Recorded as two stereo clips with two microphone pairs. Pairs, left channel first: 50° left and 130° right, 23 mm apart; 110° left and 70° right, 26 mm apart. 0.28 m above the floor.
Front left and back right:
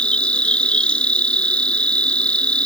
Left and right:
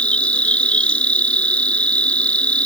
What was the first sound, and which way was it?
An insect, 80° left.